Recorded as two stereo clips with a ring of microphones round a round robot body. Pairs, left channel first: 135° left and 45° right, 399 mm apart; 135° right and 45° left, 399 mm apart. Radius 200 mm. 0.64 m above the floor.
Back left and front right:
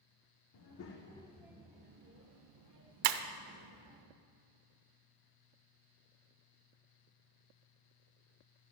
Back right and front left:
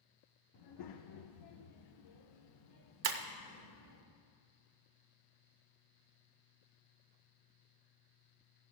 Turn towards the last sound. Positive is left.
turn(degrees=-15)